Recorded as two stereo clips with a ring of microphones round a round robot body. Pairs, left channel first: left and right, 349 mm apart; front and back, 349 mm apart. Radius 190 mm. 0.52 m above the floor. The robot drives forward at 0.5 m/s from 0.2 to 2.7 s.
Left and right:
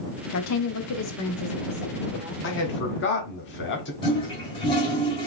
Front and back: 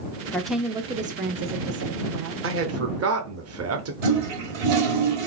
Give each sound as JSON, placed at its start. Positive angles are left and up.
{"t": 0.3, "sound": "a woman speaking", "azimuth_deg": 80, "distance_m": 0.9}
{"t": 2.4, "sound": "a man speaking", "azimuth_deg": 135, "distance_m": 1.0}
{"t": 4.0, "sound": "a toilet flushing", "azimuth_deg": 170, "distance_m": 1.5}